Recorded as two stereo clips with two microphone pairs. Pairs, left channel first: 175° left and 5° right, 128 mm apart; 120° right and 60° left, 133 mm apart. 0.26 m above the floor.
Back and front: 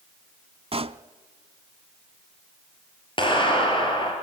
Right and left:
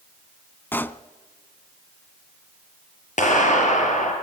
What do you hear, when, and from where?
0.7 s a pop: 45° right, 0.6 m
3.2 s a clap: 135° right, 5 m